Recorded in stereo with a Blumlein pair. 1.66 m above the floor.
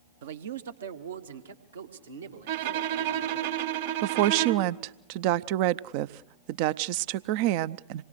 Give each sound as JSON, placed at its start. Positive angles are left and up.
{"t": 0.2, "sound": "a man speaking", "azimuth_deg": -55, "distance_m": 0.9}
{"t": 2.5, "sound": "a violin", "azimuth_deg": -55, "distance_m": 3.0}
{"t": 4.0, "sound": "a woman speaking", "azimuth_deg": -45, "distance_m": 0.7}